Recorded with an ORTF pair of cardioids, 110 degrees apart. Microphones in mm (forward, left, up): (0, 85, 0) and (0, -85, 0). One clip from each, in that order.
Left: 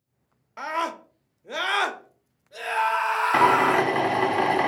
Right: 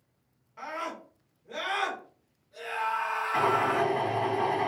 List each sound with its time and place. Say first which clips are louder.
0.6 s a scream: left 8 dB; 65° left, 0.9 m
3.3 s a drill: left 7 dB; 70° left, 0.7 m